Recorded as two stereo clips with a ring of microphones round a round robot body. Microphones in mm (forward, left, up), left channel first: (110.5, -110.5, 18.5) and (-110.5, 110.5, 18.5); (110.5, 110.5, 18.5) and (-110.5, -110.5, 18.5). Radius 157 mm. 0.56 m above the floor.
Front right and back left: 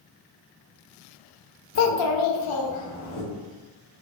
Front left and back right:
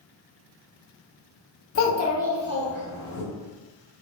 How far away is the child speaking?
About 0.7 m.